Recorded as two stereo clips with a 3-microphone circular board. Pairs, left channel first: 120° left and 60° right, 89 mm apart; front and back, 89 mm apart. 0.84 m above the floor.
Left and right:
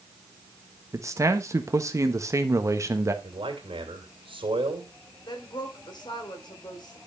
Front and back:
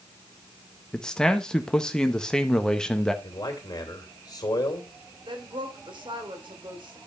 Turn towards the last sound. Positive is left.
turn(degrees=155)